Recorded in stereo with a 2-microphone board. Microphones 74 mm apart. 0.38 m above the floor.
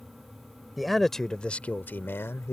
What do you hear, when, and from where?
0.8 s a man speaking: centre (ahead or behind); by 2.5 s 35° left (ahead or behind)